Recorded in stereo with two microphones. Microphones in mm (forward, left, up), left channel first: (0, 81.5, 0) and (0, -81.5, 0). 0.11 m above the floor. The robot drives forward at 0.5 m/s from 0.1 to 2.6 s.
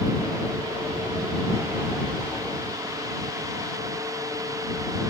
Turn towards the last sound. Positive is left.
No sound to turn to.